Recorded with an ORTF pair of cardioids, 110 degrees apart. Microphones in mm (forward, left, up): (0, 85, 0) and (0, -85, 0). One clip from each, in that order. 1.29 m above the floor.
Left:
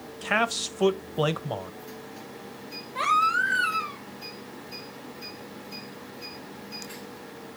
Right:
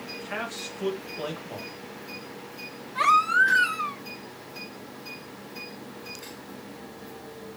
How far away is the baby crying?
About 1.7 m.